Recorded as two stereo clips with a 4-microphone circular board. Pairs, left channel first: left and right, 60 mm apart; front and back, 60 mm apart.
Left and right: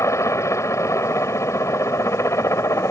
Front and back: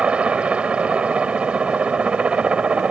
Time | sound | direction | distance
0.0 | a helicopter | 110° left | ?